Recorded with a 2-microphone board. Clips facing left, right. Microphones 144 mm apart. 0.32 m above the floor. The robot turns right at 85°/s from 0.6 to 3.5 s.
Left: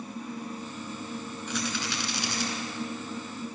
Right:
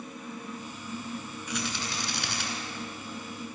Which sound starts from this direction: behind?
A rattle, at 1.5 s.